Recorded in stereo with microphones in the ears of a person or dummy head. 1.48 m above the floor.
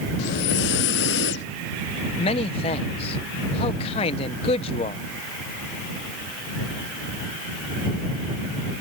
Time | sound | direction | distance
0.2 | breathing | 55° left (ahead or behind) | ?
2.2 | a man speaking | 25° left (ahead or behind) | ?